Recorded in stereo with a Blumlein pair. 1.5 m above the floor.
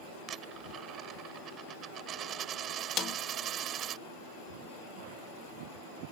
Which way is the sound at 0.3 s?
30° right.